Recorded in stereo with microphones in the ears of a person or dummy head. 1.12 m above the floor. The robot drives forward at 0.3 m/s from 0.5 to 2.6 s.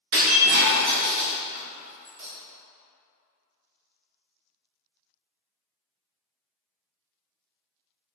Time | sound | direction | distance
0.1 | breaking glass | 45° right (ahead or behind) | 0.7 m